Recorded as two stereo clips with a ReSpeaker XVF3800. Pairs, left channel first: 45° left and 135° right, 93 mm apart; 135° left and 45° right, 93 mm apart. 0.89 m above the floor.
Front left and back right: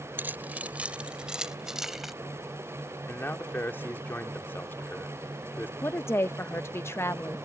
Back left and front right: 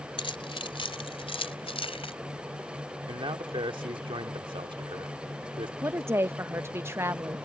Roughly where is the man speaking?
Ahead.